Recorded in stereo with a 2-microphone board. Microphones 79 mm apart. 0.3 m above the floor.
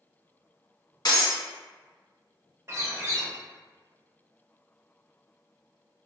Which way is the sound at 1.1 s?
60° left (ahead or behind).